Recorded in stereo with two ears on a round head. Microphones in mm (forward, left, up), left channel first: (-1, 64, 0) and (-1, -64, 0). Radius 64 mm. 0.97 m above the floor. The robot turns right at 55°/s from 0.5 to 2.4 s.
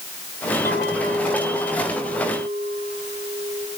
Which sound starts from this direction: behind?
A clink, at 0.7 s.